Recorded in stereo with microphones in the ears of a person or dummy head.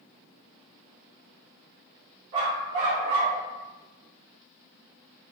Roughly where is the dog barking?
Right.